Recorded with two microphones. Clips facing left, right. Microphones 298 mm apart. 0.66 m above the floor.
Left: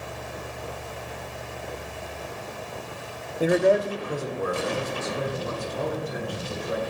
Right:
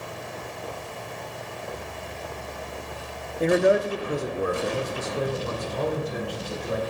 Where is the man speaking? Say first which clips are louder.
Even; 10° left (ahead or behind), 0.9 m; by 6.8 s 50° right (ahead or behind), 4 m.